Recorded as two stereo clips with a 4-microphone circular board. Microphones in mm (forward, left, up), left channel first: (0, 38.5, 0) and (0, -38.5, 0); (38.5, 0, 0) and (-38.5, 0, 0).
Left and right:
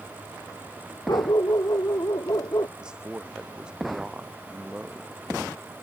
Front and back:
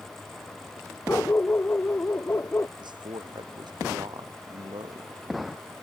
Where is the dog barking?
60° left; by 2.7 s 55° left.